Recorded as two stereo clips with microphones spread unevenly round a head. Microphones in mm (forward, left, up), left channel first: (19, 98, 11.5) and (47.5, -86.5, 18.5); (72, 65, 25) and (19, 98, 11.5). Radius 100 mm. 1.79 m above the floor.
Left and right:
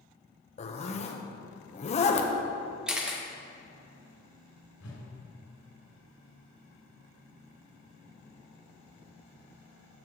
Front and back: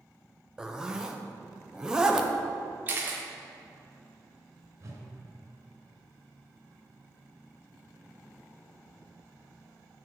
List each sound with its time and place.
0.6 s a zipper: 60° left, 0.7 m
2.9 s a camera shutter: 155° right, 0.7 m
4.8 s a whoosh: 100° left, 2.5 m